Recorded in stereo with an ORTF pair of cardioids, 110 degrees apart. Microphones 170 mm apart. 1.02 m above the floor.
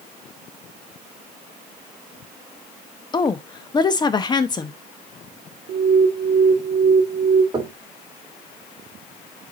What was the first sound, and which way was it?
A woman speaking, 25° left.